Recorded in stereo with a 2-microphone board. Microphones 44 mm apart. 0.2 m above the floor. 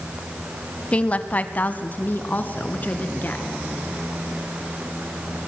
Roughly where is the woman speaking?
Left.